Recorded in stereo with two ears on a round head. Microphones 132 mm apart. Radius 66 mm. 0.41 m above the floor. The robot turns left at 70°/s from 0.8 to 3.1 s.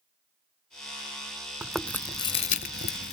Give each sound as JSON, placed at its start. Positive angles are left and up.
{"t": 1.6, "sound": "chewing", "side_deg": -10}